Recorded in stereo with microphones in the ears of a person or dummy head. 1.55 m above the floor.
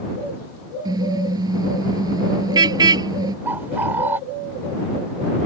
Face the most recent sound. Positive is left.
turn(degrees=-10)  # may be behind; listen again after turning